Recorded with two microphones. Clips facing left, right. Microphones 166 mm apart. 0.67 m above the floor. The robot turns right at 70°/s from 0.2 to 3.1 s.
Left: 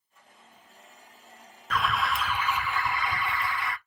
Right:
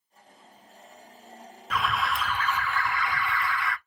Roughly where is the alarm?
Centre.